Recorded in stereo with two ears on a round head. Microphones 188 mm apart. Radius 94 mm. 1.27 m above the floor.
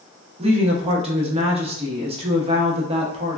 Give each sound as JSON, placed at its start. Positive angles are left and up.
{"t": 0.4, "sound": "a woman speaking", "side_deg": -30, "distance_m": 0.8}